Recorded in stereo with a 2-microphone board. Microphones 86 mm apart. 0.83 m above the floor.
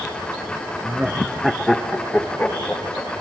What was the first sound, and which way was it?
Laughter, 10° right (ahead or behind).